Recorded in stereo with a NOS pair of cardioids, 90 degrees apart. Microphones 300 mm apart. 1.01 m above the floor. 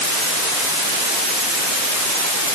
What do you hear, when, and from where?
Only background noise.